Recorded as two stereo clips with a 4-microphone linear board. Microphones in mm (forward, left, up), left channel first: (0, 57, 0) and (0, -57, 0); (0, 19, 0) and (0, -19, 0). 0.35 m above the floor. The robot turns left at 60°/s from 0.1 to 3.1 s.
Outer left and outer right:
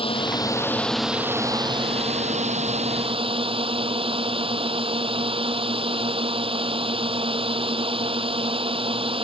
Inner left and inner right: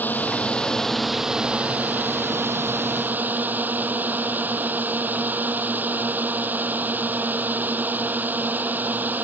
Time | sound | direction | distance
0.0 | a drone | 55° left | ?